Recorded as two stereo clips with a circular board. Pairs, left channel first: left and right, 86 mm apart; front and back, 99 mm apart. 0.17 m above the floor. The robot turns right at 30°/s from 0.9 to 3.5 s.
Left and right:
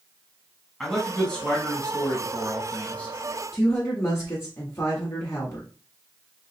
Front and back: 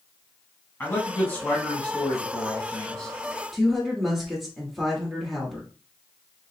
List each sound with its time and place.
0.8 s a man speaking: 15° left, 1.0 m; by 3.1 s 80° left, 1.0 m
3.5 s a woman speaking: 90° left, 1.2 m